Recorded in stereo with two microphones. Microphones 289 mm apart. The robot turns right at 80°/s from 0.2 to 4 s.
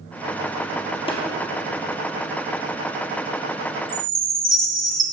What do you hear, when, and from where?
1.1 s tapping: 20° left (ahead or behind), 1.6 m; by 1.2 s 30° left (ahead or behind), 1.6 m
3.9 s a chime: 20° right (ahead or behind), 1.1 m; by 5.0 s 30° right (ahead or behind), 1.1 m